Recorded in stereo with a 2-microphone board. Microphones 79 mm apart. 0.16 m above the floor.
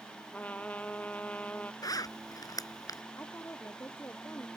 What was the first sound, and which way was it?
A trumpet, 20° left (ahead or behind).